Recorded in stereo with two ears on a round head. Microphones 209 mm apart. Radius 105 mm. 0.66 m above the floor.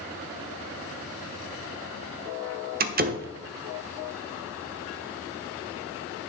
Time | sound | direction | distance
2.8 | a door slam | 40° right (ahead or behind) | 0.9 m